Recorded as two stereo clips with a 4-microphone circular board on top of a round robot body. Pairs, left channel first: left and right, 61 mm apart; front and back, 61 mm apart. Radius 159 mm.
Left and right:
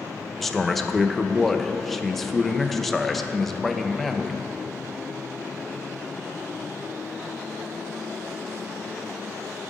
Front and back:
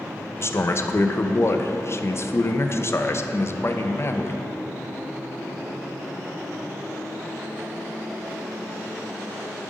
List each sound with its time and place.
0.4 s a man speaking: 5° left, 0.7 m